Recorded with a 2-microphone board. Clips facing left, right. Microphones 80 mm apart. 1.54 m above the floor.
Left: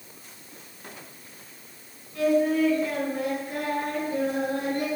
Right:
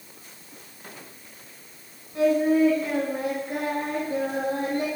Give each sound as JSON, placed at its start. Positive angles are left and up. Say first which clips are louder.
{"t": 2.1, "sound": "singing", "louder": "right 2 dB", "side_deg": -30, "distance_m": 3.5}